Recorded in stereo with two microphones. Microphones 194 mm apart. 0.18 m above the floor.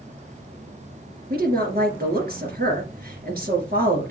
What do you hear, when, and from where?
1.3 s a woman speaking: 50° right (ahead or behind), 3 m